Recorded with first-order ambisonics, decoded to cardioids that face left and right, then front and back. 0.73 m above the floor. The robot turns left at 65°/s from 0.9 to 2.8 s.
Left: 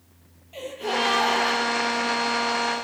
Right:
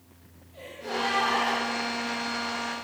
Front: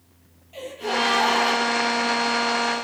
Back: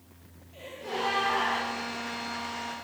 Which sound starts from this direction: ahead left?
A gasp, at 0.5 s.